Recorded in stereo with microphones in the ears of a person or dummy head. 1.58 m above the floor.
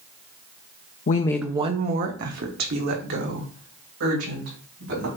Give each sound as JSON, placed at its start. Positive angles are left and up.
{"t": 1.1, "sound": "a woman speaking", "side_deg": 35, "distance_m": 0.6}